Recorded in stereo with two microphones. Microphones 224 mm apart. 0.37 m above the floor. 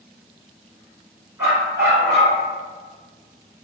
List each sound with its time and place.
1.4 s a dog barking: 10° right (ahead or behind), 1.4 m